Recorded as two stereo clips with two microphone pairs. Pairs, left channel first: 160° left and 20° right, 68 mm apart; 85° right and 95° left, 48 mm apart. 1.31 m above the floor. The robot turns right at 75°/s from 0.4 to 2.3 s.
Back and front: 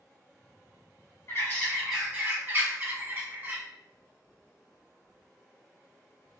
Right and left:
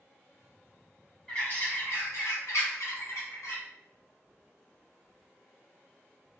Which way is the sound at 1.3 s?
160° right.